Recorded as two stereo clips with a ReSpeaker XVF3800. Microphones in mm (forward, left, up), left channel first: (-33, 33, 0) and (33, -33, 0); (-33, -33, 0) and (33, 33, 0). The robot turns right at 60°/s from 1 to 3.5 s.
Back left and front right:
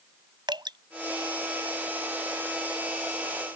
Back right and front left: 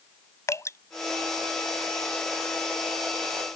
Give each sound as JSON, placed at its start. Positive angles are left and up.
{"t": 0.5, "sound": "dripping", "azimuth_deg": -80}